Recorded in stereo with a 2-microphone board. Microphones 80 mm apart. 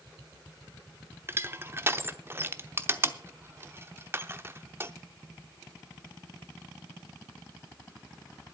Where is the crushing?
30° right (ahead or behind), 0.7 m.